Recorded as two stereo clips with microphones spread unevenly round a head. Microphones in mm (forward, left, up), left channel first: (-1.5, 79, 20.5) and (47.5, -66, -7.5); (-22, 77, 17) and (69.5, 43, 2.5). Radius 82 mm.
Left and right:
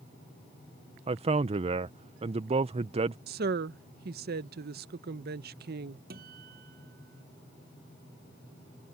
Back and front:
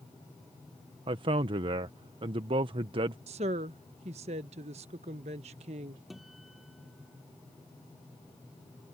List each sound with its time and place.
1.1 s a man speaking: 35° right
3.3 s a woman speaking: 50° right
6.1 s a guitar: 110° right